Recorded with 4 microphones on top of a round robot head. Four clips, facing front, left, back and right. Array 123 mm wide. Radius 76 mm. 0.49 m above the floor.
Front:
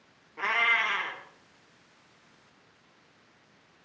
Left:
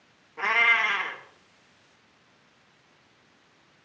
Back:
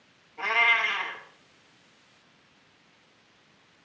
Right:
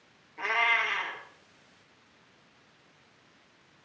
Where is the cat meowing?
60° left, 3 m.